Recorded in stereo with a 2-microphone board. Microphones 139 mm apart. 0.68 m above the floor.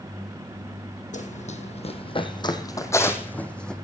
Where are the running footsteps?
65° left (ahead or behind), 1.5 m; by 3.7 s 5° left (ahead or behind), 1.8 m.